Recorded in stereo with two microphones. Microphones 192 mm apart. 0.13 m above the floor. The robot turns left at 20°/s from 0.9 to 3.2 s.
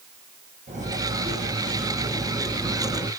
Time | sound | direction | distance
0.7 | cutlery clinking | 140° right | 3 m